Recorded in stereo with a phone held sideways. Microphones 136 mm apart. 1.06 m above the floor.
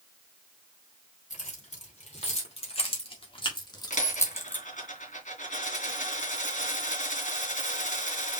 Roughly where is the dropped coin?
Left.